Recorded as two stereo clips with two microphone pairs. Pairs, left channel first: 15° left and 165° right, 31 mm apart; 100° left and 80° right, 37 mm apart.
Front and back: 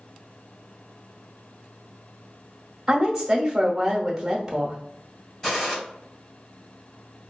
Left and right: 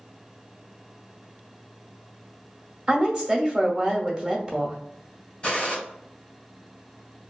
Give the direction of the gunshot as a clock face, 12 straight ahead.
10 o'clock.